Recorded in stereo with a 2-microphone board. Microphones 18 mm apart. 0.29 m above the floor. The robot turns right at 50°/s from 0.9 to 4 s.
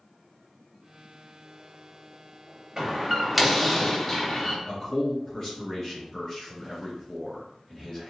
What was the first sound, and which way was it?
A door slam, 40° right.